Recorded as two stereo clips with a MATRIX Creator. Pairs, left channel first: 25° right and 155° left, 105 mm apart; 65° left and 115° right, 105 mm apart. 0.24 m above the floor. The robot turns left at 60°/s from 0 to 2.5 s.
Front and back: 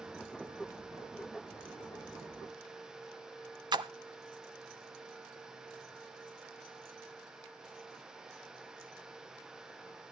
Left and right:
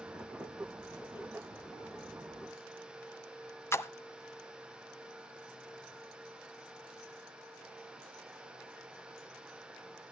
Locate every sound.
3.7 s a splash: 125° left, 0.7 m